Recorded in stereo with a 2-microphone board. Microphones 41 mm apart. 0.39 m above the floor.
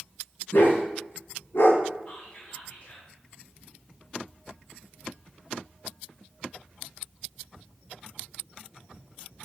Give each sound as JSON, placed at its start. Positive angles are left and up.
{"t": 0.5, "sound": "a dog barking", "side_deg": 50, "distance_m": 1.7}
{"t": 2.1, "sound": "whispering", "side_deg": 25, "distance_m": 1.4}